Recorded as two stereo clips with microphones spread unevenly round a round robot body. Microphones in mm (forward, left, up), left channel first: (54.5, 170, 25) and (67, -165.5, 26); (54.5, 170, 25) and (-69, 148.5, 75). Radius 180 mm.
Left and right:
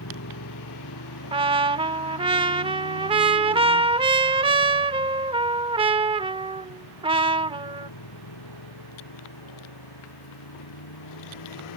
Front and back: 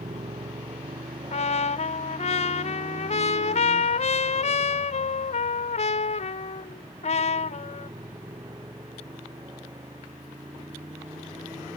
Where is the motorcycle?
150° left; by 11.8 s 130° left.